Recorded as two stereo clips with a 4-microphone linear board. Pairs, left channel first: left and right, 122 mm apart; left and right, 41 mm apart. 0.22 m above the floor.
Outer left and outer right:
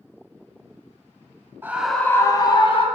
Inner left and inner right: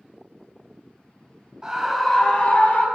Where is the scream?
20° right (ahead or behind), 1.2 m; by 2.9 s 50° left (ahead or behind), 1.8 m.